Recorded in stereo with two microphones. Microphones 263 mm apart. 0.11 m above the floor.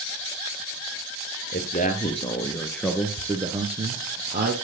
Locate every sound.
1.5 s a man speaking: 40° left (ahead or behind), 1.9 m; by 4.5 s 40° right (ahead or behind), 2 m